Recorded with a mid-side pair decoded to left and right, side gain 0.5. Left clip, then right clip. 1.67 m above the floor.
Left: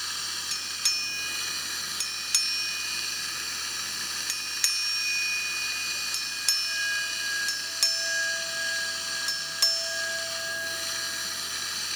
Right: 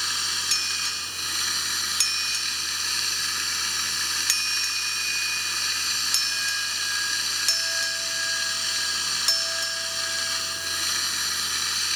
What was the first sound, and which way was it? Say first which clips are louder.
Running water: right 6 dB; 40° right.